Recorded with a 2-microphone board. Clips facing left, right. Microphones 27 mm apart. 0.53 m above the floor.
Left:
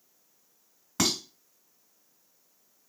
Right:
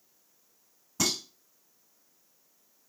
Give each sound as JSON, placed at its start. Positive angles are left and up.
{"t": 1.0, "sound": "dishes clattering", "side_deg": 70, "distance_m": 2.0}